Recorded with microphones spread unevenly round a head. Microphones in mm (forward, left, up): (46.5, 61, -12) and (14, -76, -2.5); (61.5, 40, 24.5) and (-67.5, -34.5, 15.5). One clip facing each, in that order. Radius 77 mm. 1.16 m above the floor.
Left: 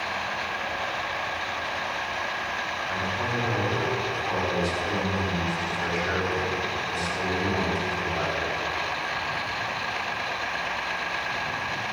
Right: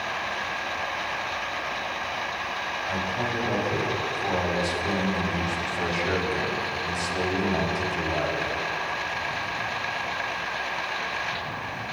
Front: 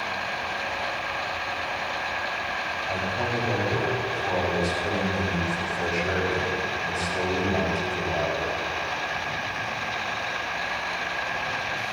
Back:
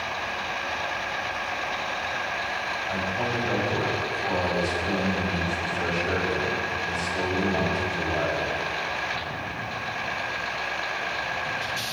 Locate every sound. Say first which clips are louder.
2.9 s a man speaking: right 2 dB, even; 50° right, 6.5 m